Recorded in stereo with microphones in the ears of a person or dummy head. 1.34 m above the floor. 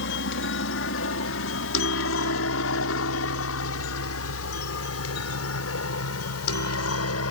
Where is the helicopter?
65° left (ahead or behind); by 7.3 s 75° left (ahead or behind).